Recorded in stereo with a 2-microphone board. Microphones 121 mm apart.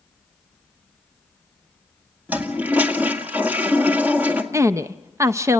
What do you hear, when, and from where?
2.3 s a toilet flushing: 15° right (ahead or behind), 1.9 m
4.5 s a woman speaking: 25° right (ahead or behind), 0.5 m